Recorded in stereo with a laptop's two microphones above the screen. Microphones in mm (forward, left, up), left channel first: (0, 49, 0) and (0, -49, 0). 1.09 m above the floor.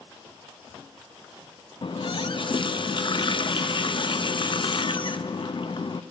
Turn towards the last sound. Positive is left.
turn(degrees=55)  # may be behind; listen again after turning